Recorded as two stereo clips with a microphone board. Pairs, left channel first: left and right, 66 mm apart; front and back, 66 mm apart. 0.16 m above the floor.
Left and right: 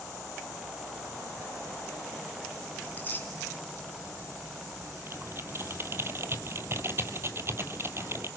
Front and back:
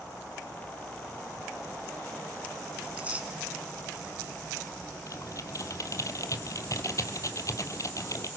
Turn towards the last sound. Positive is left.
turn(degrees=-35)